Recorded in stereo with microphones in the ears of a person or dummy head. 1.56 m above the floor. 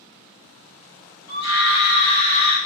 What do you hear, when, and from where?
1.3 s a scream: 30° left (ahead or behind), 2.0 m